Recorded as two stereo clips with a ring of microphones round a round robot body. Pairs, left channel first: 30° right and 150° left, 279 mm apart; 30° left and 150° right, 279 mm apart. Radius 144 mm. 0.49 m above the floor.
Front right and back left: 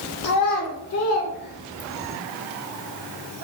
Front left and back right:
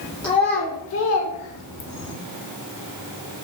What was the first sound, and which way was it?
A child speaking, 45° right.